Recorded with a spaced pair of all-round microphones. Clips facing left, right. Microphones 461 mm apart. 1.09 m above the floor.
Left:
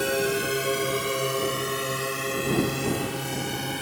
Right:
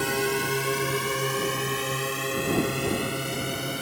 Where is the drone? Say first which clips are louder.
Left 2 dB; 15° right (ahead or behind); by 3.8 s 5° left (ahead or behind).